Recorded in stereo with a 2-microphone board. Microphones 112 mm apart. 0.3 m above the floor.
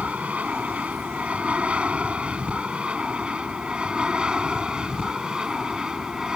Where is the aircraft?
10° right (ahead or behind); by 6.3 s 5° right (ahead or behind).